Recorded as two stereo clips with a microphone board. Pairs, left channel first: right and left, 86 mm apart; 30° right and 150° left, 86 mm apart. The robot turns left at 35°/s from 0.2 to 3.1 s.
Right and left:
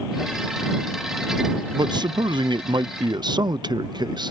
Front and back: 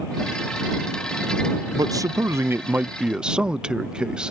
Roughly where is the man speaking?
Behind left.